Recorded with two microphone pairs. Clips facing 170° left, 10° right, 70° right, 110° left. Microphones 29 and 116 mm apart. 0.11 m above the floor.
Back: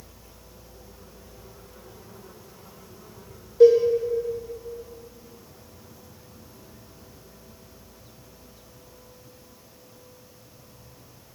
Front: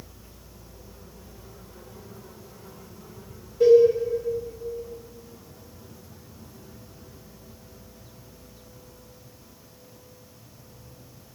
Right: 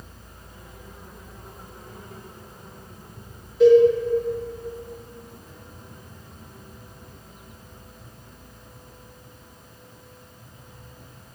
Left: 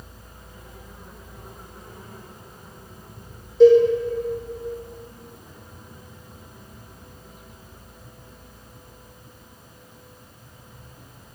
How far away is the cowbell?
About 1.5 m.